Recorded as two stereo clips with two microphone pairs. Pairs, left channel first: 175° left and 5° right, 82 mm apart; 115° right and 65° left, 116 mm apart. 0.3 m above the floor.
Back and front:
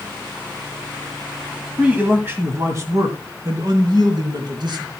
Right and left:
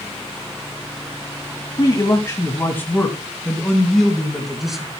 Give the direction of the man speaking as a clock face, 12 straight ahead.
3 o'clock.